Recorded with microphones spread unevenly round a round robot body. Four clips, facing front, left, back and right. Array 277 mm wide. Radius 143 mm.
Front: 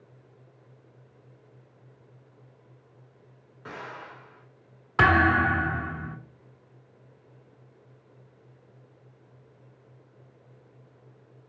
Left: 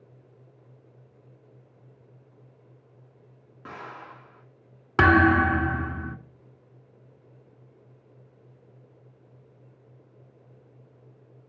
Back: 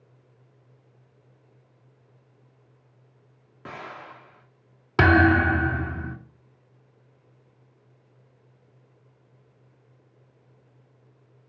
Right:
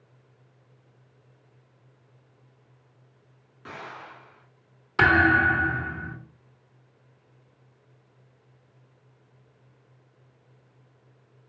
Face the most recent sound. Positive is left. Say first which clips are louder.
# left 1 dB, back 3 dB
turn(degrees=140)